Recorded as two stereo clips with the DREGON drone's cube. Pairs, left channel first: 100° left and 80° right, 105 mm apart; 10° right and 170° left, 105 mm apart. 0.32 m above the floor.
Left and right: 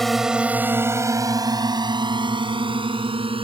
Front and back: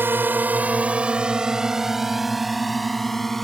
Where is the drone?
175° right; by 3.4 s 100° right.